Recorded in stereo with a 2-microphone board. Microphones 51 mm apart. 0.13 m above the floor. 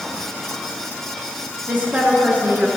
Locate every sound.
1.7 s a woman speaking: 35° right (ahead or behind), 1.4 m